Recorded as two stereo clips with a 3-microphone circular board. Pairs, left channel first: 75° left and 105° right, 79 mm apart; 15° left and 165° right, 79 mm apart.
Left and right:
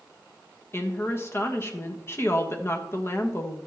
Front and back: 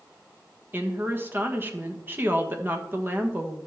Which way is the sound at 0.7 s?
130° left.